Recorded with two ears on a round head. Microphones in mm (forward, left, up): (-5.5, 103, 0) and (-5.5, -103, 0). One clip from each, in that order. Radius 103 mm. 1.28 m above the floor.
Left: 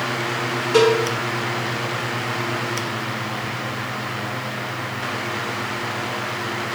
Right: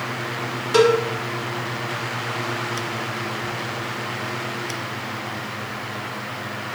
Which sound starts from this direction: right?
A cowbell, at 0.7 s.